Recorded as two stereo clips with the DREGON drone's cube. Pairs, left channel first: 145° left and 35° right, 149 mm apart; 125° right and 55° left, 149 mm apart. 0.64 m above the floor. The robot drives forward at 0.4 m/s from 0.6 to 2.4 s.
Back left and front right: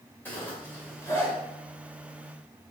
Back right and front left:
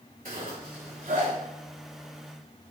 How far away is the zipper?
About 2.5 m.